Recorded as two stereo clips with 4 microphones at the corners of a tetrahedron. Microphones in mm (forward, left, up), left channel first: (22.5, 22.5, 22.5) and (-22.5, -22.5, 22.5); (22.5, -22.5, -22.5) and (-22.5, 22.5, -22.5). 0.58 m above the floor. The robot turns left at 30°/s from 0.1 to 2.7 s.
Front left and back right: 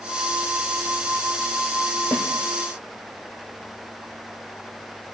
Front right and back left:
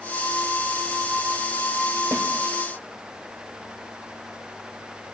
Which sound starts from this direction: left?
A snare drum, at 2.1 s.